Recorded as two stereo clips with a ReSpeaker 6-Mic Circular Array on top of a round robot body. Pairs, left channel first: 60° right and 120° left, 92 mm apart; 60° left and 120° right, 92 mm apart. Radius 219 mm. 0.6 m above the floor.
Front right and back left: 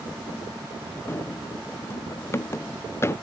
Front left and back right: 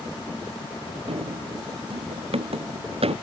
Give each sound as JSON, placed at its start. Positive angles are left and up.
{"t": 1.1, "sound": "running footsteps", "azimuth_deg": -125}